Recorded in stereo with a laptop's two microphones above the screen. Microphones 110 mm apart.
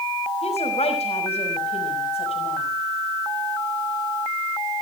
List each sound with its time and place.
0.4 s a woman speaking: 70° left (ahead or behind), 6 m